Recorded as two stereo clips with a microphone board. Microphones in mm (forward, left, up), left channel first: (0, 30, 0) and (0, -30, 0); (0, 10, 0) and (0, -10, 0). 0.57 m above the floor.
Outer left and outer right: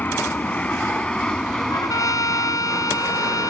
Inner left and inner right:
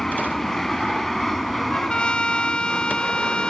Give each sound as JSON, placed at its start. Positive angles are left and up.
{"t": 0.0, "sound": "an aircraft", "side_deg": 30}
{"t": 1.7, "sound": "a trumpet", "side_deg": 75}